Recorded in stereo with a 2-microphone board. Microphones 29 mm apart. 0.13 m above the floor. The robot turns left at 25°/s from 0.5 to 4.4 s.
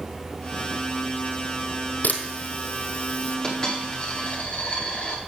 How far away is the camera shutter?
About 2.0 m.